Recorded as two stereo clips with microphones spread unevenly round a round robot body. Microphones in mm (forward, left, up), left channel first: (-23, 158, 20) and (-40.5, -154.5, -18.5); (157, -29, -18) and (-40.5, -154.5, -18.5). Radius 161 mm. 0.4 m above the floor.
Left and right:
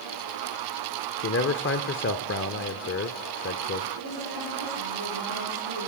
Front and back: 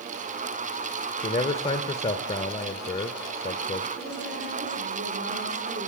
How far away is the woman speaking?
About 10 m.